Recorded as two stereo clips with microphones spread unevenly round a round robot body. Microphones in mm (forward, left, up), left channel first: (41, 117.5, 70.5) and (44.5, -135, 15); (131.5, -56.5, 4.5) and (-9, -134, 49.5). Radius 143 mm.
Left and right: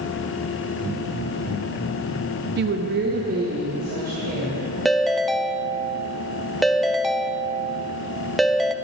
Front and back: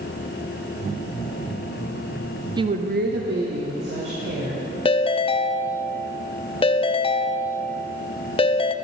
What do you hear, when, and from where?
2.6 s a woman speaking: 75° right, 0.7 m; by 4.6 s 155° right, 3.5 m
4.8 s a ringtone: 5° right, 0.6 m